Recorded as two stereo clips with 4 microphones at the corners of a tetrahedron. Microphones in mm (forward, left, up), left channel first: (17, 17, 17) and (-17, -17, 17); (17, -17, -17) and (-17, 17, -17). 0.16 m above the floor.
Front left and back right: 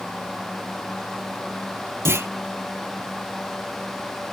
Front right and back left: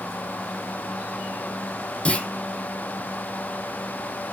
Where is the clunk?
110° right, 0.8 m.